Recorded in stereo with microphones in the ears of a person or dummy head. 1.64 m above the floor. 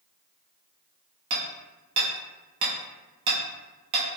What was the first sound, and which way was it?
Hammering, 30° right (ahead or behind).